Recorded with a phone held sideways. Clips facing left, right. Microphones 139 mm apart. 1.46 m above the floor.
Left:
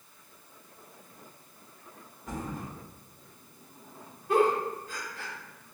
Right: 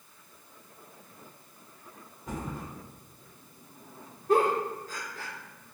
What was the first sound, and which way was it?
A thud, 20° right (ahead or behind).